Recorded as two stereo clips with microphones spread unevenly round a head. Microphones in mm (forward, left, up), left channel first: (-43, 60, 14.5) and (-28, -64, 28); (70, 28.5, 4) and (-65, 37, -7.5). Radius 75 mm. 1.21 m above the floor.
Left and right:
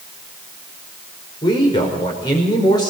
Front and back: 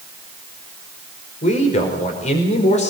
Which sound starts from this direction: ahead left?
A man speaking, at 1.4 s.